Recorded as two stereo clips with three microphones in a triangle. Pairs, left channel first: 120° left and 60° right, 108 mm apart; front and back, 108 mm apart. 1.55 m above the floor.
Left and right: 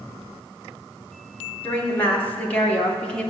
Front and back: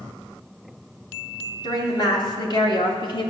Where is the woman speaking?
45° left, 2.5 m; by 3.3 s 40° left, 1.8 m.